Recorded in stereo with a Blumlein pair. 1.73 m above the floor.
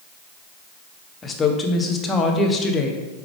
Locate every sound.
1.2 s a woman speaking: 15° left, 0.7 m